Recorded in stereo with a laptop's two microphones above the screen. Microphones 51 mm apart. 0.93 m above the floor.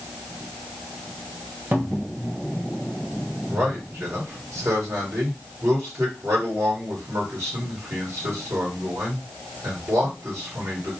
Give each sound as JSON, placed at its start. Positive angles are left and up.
{"t": 1.7, "sound": "a cupboard door", "side_deg": -45, "distance_m": 1.0}
{"t": 3.5, "sound": "a man speaking", "side_deg": -65, "distance_m": 1.9}